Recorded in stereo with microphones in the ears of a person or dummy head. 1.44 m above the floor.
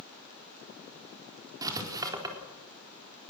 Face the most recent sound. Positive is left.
turn(degrees=-20)  # may be behind; listen again after turning